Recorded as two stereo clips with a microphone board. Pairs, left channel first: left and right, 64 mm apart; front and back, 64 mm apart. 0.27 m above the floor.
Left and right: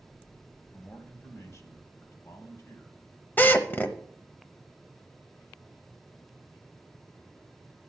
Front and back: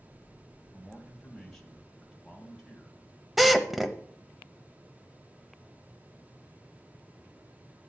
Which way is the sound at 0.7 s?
85° left.